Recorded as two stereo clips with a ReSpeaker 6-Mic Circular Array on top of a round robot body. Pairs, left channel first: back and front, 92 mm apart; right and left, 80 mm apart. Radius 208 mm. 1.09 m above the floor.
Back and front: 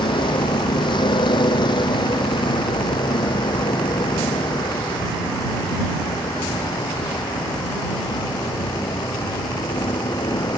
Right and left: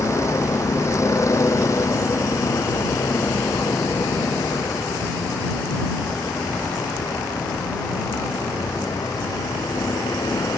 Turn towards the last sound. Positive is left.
turn(degrees=-140)